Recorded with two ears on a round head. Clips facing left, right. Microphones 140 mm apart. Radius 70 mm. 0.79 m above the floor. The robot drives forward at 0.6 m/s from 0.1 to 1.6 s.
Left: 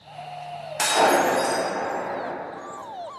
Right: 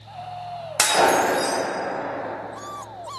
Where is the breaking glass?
75° right (ahead or behind), 0.5 m; by 1.6 s 40° right (ahead or behind), 0.8 m.